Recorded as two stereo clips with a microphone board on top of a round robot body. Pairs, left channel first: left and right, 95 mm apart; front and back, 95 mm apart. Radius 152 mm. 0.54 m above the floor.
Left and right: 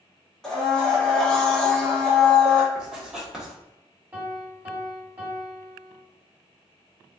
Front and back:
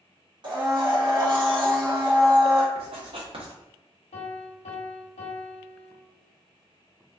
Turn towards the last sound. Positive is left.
turn(degrees=-20)